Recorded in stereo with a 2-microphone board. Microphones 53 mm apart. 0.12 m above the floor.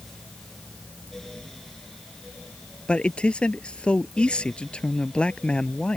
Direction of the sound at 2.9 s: 20° left (ahead or behind).